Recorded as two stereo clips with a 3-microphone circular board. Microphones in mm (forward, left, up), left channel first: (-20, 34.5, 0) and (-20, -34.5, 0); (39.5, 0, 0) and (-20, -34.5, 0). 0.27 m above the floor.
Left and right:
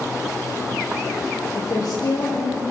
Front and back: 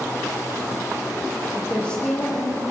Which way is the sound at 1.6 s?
105° left.